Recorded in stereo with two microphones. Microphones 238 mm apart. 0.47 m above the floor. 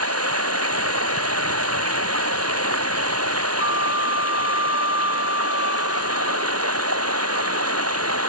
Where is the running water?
85° right.